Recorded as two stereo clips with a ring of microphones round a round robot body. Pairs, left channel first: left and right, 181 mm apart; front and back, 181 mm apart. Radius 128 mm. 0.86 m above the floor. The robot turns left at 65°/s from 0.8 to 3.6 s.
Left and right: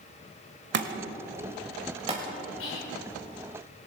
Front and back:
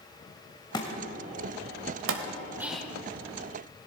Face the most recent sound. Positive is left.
turn(degrees=35)